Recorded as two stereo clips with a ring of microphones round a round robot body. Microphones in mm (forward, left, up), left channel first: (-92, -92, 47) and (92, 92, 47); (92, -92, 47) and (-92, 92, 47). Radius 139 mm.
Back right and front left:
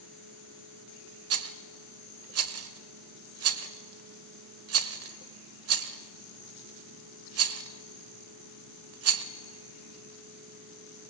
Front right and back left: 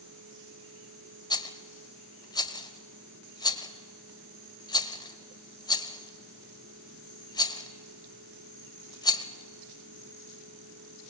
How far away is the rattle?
About 1.0 m.